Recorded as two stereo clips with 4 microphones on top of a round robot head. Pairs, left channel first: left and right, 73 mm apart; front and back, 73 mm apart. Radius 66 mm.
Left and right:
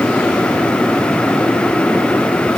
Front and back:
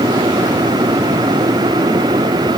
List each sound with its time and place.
Only background noise.